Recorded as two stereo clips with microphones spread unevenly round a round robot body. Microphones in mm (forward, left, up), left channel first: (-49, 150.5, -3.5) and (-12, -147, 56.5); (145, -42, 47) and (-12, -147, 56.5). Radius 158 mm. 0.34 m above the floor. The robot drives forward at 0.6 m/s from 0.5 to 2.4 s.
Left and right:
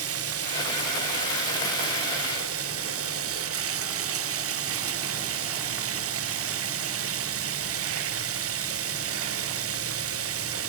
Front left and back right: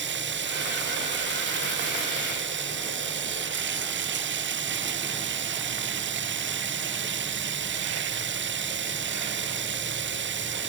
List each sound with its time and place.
0.0 s running water: 125° right